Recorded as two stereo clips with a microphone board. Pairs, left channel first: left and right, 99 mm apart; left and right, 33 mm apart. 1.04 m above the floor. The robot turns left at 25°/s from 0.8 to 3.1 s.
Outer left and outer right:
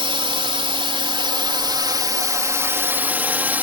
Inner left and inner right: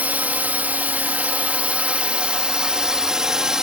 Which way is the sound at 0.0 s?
100° right.